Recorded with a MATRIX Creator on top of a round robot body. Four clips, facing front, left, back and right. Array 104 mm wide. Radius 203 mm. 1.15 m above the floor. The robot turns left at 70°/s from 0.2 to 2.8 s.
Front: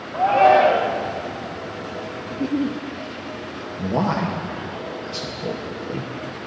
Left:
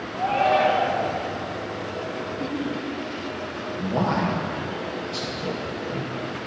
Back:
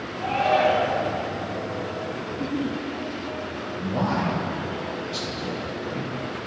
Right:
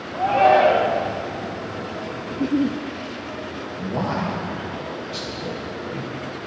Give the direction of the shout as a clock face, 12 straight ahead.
12 o'clock.